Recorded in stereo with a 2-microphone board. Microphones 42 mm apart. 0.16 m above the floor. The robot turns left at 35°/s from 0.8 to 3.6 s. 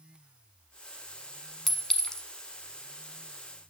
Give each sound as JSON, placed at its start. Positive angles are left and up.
{"t": 1.7, "sound": "a clink", "side_deg": 5, "distance_m": 1.1}